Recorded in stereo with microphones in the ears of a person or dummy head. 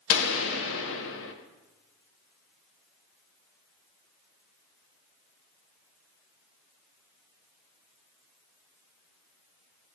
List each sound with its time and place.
0.1 s a gunshot: 70° left (ahead or behind), 1.4 m